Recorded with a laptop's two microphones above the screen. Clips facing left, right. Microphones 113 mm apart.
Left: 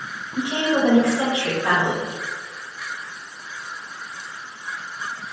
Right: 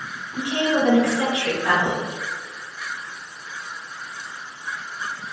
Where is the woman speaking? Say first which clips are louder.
Left 1 dB; 25° left (ahead or behind), 1.3 m.